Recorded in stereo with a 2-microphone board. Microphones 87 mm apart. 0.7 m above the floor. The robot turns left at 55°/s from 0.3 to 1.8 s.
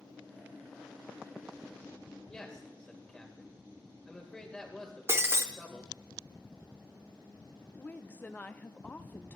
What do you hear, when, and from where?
2.3 s a man speaking: 10° left (ahead or behind), 3 m
5.1 s breaking glass: 30° right (ahead or behind), 0.7 m
7.8 s a woman speaking: 20° left (ahead or behind), 0.6 m